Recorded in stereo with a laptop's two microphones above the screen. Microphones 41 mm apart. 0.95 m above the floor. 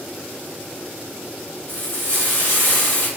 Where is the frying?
70° left (ahead or behind), 1.9 m.